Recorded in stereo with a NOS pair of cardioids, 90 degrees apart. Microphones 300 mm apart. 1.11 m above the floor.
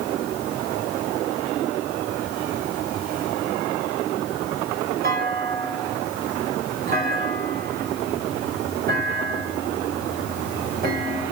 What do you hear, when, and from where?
5.0 s a clunk: 30° right, 6 m